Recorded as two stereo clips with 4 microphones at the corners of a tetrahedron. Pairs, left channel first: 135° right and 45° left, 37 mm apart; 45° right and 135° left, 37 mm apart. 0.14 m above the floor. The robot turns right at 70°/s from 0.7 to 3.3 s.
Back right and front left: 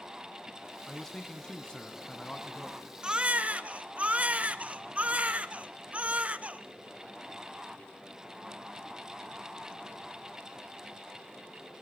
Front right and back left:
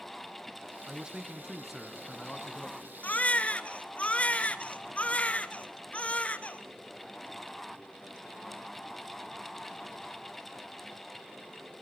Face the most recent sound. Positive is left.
turn(degrees=0)